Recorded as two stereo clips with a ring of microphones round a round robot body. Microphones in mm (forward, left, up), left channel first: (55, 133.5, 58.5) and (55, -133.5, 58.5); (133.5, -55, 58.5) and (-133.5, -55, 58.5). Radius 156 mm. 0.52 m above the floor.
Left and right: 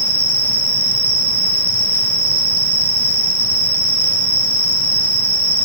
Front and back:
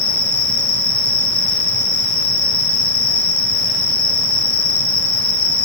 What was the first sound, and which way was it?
An insect, 25° right.